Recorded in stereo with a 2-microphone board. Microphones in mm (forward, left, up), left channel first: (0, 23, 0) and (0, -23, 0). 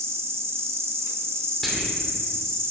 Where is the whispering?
Centre (ahead or behind), 3 m.